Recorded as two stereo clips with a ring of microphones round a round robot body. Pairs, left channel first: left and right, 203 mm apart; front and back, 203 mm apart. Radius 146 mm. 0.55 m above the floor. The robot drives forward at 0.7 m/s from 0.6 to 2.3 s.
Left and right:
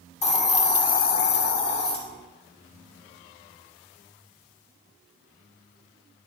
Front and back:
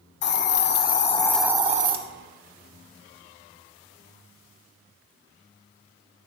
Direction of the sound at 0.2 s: 30° left.